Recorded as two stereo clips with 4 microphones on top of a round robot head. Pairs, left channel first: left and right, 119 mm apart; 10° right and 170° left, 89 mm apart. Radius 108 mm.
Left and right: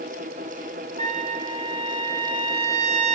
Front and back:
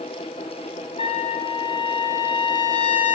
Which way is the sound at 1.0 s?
45° right.